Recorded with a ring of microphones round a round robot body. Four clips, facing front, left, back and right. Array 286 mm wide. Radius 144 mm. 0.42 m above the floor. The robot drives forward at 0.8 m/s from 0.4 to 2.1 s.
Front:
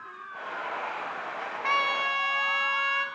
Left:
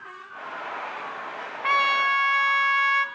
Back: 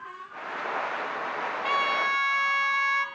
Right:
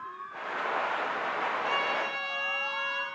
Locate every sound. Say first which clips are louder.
1.6 s a trumpet: left 7 dB, even; 75° left, 0.7 m; by 3.0 s 105° left, 0.7 m